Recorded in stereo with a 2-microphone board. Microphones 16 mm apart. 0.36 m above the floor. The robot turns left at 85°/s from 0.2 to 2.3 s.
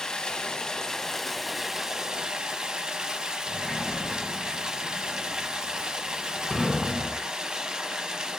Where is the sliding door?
20° left (ahead or behind), 1.0 m.